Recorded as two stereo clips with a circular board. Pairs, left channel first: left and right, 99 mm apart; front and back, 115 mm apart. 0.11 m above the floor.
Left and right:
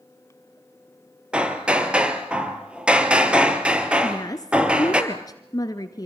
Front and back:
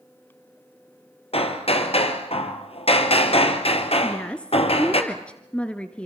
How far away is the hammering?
About 2 m.